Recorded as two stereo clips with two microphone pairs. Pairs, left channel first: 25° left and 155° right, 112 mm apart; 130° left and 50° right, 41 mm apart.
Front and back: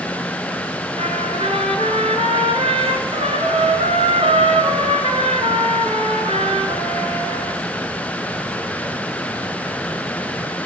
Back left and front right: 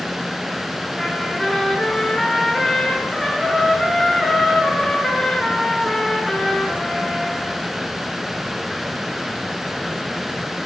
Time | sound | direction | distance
1.0 | a trumpet | 145° right | 3.5 m